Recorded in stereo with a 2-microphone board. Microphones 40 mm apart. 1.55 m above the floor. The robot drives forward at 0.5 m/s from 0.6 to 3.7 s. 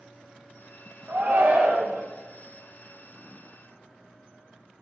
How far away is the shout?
About 1.8 m.